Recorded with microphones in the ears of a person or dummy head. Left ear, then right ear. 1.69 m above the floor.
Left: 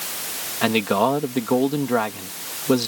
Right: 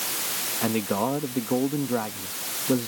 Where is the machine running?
No machine running in this recording.